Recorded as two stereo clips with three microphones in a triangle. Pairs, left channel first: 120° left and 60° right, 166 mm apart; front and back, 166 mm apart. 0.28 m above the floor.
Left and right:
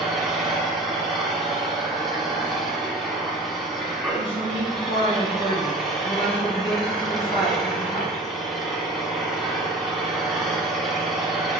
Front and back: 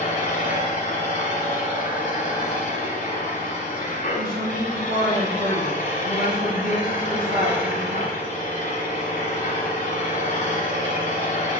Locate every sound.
0.0 s an engine running: 30° left, 1.3 m
4.2 s a woman speaking: 170° left, 2.5 m